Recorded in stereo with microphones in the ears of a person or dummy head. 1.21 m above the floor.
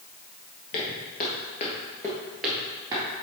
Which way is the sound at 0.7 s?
50° left (ahead or behind).